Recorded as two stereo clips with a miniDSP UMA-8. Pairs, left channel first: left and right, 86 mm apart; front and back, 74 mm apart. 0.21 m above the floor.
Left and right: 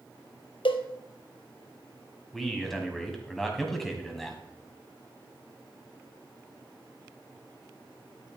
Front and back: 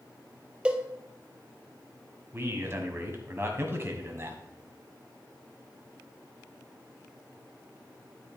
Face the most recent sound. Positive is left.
turn(degrees=175)